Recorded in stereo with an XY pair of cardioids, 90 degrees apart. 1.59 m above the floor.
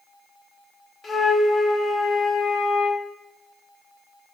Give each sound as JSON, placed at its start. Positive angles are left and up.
{"t": 1.0, "sound": "a flute", "azimuth_deg": 45, "distance_m": 0.9}